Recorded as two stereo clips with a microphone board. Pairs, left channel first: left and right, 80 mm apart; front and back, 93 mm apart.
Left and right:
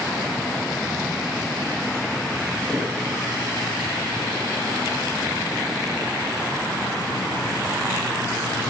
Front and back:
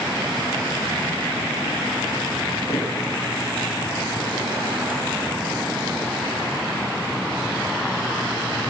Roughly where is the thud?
Ahead.